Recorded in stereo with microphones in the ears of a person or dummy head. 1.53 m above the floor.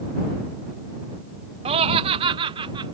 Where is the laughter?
30° right (ahead or behind); by 2.9 s 25° right (ahead or behind).